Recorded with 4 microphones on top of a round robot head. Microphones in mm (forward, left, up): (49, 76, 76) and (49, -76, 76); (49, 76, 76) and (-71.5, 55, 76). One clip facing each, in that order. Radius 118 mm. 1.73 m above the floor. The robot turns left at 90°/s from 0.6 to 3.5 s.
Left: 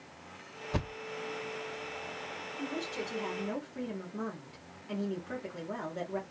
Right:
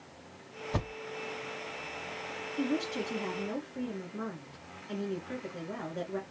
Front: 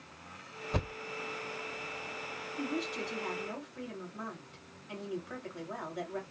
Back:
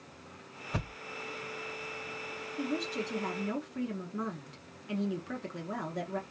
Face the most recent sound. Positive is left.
turn(degrees=175)